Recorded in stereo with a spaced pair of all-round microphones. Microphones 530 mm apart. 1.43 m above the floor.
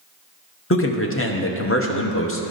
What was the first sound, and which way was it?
A man speaking, 25° left (ahead or behind).